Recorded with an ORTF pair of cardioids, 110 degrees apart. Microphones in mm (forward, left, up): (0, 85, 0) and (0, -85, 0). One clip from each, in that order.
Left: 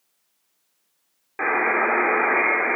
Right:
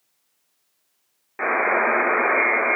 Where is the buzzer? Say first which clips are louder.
Right 1 dB; 10° left, 1.0 m.